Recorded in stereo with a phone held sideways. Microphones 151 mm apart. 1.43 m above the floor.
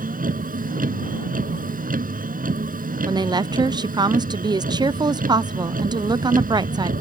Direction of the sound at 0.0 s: 80° right.